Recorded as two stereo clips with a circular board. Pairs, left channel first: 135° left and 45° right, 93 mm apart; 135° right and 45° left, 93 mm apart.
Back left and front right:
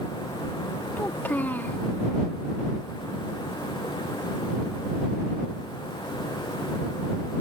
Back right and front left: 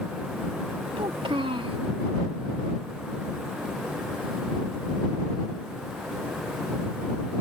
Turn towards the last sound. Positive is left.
turn(degrees=65)